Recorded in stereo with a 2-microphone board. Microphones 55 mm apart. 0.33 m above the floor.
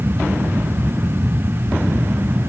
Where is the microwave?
I don't hear a microwave.